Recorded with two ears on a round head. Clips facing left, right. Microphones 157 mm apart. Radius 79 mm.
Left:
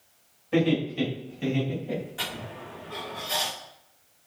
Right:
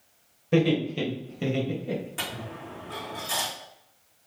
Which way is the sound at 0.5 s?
55° right (ahead or behind).